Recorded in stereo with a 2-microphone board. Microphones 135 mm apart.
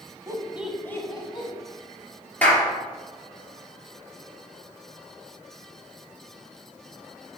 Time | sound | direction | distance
0.3 | laughter | 30° right (ahead or behind) | 1.2 m
2.4 | a clap | 10° left (ahead or behind) | 3 m